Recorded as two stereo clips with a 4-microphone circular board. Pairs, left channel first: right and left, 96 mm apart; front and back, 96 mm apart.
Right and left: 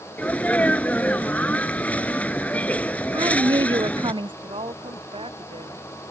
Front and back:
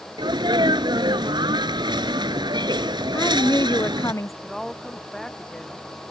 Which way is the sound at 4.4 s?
85° left.